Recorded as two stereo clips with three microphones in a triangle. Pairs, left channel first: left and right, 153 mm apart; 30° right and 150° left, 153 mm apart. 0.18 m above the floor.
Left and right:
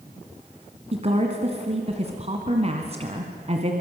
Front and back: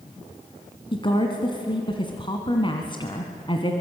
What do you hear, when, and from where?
0.9 s a woman speaking: 70° right, 1.9 m